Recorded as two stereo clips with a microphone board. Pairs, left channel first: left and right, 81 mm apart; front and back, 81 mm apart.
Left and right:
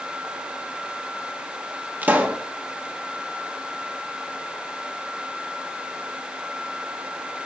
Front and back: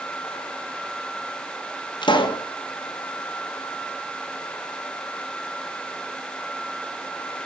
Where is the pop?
20° right, 1.4 m.